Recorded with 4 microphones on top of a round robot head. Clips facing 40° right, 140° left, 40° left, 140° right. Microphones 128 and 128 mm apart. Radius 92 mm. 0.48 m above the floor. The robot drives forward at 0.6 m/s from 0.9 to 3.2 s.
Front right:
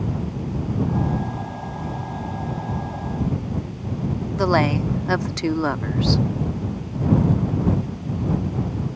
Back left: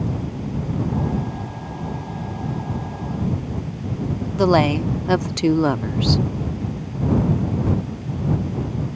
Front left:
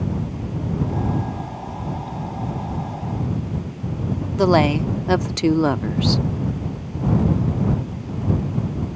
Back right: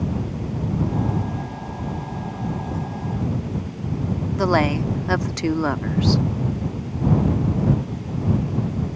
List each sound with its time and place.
4.4 s a woman speaking: 85° left